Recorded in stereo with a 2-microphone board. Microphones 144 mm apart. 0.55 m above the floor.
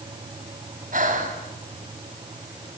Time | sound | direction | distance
0.9 | breathing | 70° right (ahead or behind) | 3.5 m